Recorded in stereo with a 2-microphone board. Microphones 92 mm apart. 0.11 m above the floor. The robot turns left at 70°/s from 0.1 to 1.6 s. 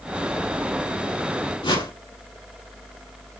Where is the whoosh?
55° left (ahead or behind), 2.5 m.